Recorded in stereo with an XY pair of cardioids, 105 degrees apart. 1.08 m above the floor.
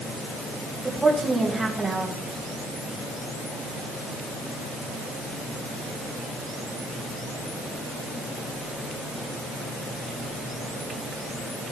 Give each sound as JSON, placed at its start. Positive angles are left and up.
{"t": 0.8, "sound": "a woman speaking", "azimuth_deg": -15, "distance_m": 3.5}